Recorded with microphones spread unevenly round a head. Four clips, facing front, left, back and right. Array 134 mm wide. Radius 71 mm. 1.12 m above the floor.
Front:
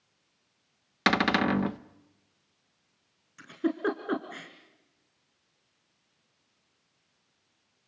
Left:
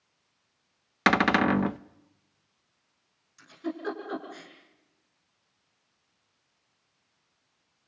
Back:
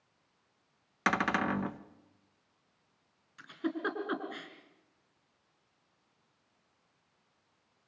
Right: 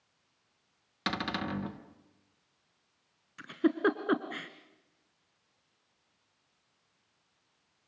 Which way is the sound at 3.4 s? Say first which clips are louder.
Right 7 dB, front 6 dB; 75° right.